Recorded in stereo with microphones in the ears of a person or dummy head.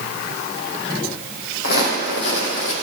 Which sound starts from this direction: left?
Footsteps, at 1.6 s.